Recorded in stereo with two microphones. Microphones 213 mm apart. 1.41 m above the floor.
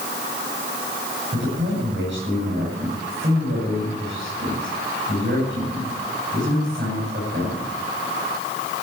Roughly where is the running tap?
I don't hear a running tap.